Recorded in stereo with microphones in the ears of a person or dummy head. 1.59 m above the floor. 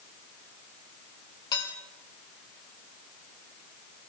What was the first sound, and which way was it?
Dishes clattering, 25° left (ahead or behind).